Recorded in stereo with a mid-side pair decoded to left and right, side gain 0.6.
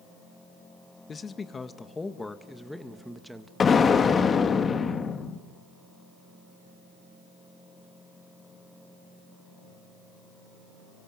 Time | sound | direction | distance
1.1 | a man speaking | 30° left | 2 m
3.6 | an explosion | 30° left | 2.5 m